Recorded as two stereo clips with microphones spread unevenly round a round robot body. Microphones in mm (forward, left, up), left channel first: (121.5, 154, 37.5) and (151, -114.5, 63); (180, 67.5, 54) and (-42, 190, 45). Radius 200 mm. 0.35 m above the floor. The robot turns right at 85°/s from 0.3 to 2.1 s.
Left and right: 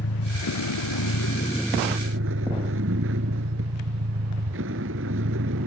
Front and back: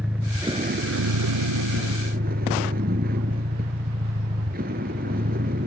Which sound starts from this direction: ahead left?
A vehicle, at 0.0 s.